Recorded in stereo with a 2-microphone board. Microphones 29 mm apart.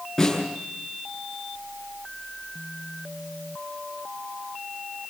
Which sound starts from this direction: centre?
A snare drum, at 0.2 s.